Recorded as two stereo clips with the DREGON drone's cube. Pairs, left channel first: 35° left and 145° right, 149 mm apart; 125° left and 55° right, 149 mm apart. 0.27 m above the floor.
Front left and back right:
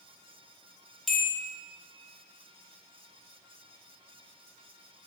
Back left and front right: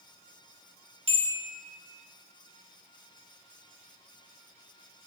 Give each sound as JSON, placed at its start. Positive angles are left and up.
{"t": 1.1, "sound": "a bell", "azimuth_deg": -55, "distance_m": 0.5}